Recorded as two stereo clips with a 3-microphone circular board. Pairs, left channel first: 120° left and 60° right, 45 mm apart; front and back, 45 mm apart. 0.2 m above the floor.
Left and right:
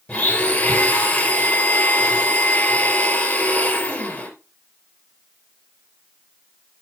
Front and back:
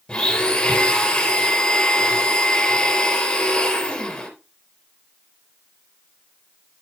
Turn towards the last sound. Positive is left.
turn(degrees=65)